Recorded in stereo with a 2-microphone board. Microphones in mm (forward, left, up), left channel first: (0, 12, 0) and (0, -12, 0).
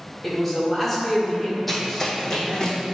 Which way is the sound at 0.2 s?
Centre (ahead or behind).